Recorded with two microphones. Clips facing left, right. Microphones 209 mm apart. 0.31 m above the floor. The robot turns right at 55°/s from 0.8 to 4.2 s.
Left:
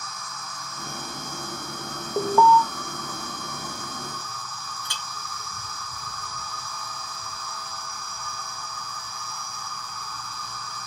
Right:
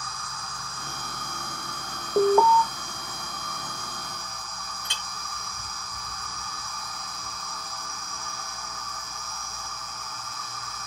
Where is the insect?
150° right, 2.5 m; by 10.9 s 35° left, 2.5 m.